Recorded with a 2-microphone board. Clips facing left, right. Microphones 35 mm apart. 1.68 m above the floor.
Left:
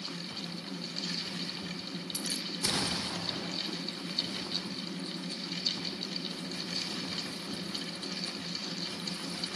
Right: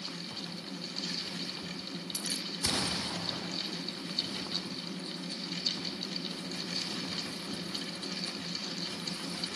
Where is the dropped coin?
10° left (ahead or behind).